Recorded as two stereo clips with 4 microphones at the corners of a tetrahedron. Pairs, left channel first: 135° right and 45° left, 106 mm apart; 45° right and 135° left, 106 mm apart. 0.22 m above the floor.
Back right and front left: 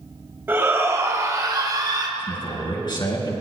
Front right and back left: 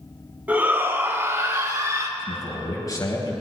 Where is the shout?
85° left, 1.6 m.